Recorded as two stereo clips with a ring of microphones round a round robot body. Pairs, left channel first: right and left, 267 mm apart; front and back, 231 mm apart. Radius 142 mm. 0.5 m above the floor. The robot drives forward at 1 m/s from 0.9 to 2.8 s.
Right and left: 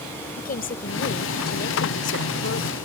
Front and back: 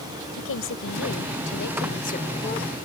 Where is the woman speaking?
35° right; by 2.8 s 70° right.